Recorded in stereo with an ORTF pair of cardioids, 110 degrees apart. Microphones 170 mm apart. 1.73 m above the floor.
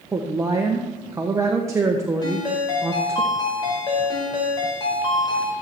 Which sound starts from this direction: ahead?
A woman speaking, at 0.1 s.